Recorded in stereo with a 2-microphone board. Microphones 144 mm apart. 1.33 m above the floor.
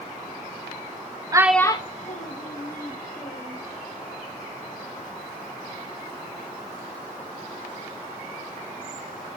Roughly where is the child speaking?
Right.